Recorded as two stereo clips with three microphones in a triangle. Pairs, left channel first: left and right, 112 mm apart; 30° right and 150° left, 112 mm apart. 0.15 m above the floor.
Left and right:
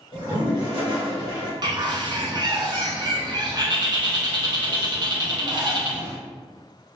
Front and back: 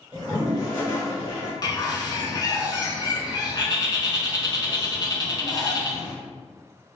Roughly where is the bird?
Ahead right.